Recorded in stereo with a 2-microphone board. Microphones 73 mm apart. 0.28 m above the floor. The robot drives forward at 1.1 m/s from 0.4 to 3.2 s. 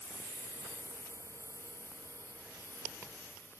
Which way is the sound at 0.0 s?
50° left (ahead or behind).